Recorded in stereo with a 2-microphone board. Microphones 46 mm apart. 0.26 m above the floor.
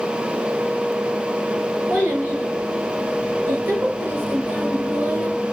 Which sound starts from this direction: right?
A child speaking, at 1.9 s.